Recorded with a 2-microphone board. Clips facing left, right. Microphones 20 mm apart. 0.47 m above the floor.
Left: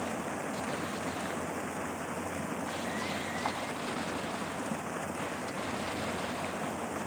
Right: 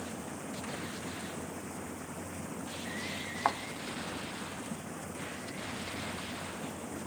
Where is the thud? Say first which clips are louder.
Right 6 dB; 55° right (ahead or behind).